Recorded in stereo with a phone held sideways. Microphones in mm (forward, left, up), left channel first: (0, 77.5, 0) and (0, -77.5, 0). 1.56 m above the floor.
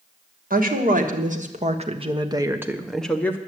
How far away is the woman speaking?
About 2.0 m.